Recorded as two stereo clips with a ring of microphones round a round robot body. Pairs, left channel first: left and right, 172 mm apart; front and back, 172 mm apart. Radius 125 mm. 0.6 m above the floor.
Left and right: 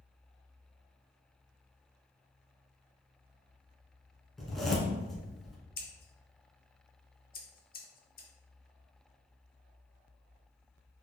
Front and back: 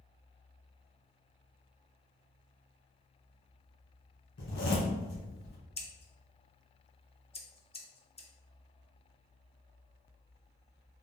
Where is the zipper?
Straight ahead, 1.7 m.